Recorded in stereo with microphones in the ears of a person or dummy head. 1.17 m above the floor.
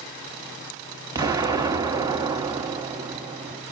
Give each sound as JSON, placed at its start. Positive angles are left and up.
{"t": 1.1, "sound": "an explosion", "side_deg": -25, "distance_m": 1.4}